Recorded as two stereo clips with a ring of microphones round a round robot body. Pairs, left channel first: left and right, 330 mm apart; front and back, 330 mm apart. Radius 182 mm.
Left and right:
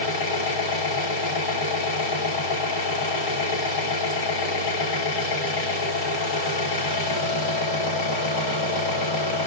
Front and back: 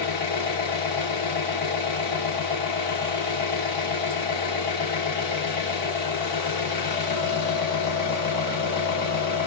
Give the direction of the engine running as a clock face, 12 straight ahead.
9 o'clock.